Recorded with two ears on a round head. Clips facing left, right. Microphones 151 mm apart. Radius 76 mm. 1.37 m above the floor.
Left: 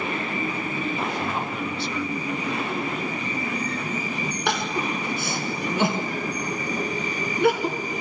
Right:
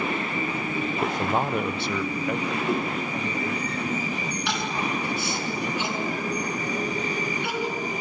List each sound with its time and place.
1.0 s a man speaking: 40° right (ahead or behind), 0.8 m; by 3.6 s 55° right (ahead or behind), 2 m
2.6 s a whoosh: 35° right (ahead or behind), 8.5 m
4.5 s crying: 45° left (ahead or behind), 3 m